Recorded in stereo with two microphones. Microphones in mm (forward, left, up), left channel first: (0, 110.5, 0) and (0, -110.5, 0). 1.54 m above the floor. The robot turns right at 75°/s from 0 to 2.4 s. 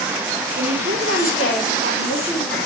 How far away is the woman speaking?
About 4.5 m.